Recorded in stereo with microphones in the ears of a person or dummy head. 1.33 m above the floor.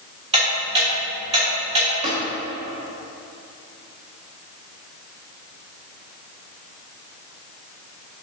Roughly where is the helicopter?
No helicopter in this recording.